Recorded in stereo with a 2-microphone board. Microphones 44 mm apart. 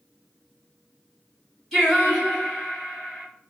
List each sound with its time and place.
1.7 s singing: 5° left (ahead or behind), 1.9 m